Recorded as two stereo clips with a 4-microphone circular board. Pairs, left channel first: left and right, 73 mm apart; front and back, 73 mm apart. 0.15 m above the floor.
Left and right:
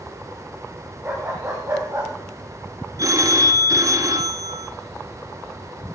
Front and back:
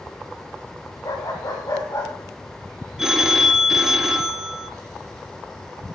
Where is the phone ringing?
100° right, 1.5 m.